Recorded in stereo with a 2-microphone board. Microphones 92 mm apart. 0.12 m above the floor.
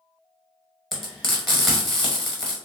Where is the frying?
Centre (ahead or behind), 1.5 m.